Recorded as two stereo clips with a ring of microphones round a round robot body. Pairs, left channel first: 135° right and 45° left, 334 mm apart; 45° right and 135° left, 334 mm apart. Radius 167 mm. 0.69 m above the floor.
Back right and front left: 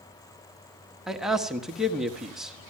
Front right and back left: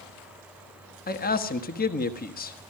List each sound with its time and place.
1.1 s a man speaking: 40° right, 1.1 m